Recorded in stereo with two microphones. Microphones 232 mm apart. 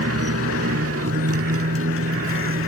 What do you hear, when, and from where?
0.0 s a motorcycle: 80° right; by 2.7 s 60° right (ahead or behind)